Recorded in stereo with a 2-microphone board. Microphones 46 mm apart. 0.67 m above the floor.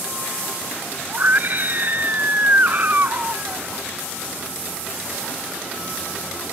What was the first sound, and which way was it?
A scream, 40° right (ahead or behind).